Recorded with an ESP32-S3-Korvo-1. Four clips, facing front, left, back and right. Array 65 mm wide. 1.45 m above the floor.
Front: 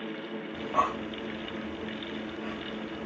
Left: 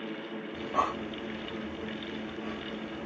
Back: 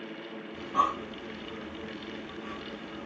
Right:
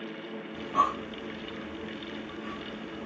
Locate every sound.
0.5 s breathing: 25° left, 3 m